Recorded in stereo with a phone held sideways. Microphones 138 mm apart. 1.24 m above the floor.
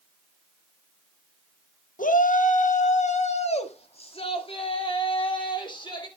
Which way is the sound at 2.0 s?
80° left.